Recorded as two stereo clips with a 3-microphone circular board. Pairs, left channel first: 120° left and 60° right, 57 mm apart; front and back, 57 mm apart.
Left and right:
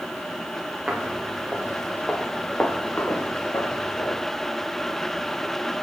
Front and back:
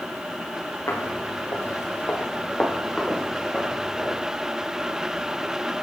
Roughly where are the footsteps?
Ahead.